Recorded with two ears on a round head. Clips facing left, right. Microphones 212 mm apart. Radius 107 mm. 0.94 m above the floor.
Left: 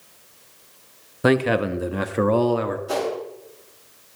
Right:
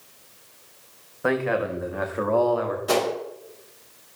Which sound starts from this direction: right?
A gunshot, at 2.9 s.